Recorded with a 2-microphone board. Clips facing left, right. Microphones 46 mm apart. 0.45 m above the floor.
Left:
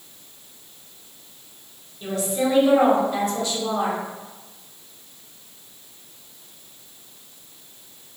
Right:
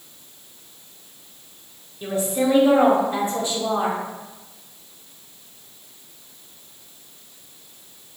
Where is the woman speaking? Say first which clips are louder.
Right 2 dB; 20° right (ahead or behind), 0.7 m.